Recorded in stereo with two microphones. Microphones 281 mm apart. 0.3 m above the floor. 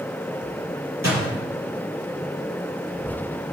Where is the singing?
No singing in this recording.